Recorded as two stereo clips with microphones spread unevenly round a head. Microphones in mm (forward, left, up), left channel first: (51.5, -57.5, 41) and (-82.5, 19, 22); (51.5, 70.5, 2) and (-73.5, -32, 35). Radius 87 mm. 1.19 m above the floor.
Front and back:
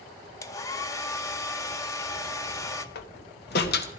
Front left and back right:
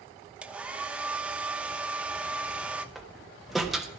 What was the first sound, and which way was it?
A hair dryer, 75° right.